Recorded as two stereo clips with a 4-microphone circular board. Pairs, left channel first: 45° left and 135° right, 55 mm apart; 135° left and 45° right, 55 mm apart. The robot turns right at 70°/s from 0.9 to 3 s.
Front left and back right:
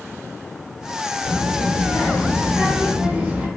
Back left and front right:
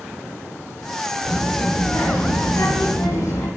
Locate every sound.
1.2 s a child speaking: 25° left, 0.9 m; by 3.5 s 150° left, 0.9 m